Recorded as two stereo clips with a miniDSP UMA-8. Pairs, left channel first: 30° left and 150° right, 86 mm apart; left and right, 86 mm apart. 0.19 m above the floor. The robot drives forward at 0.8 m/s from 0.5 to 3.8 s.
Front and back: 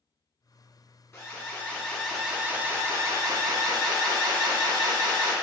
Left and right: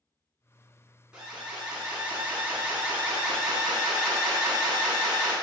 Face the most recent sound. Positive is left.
turn(degrees=-170)